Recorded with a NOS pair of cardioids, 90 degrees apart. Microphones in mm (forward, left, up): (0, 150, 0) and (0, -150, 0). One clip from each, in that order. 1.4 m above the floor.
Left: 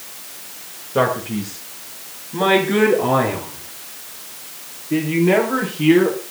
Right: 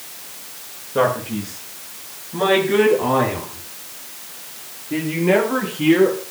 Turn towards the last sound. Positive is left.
turn(degrees=5)